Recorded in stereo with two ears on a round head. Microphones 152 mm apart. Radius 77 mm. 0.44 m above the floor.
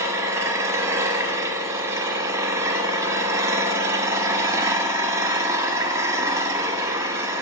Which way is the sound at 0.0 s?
15° right (ahead or behind).